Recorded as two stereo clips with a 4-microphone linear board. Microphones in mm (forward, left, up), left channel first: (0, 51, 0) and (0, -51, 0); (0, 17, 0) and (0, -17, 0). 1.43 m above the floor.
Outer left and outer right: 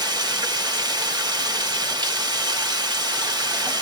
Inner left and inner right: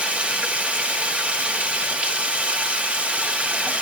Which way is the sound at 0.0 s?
45° right (ahead or behind).